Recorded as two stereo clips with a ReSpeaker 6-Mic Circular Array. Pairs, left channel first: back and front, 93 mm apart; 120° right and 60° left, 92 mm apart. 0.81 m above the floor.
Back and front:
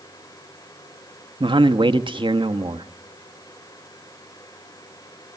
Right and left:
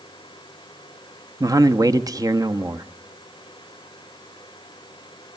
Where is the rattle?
I don't hear a rattle.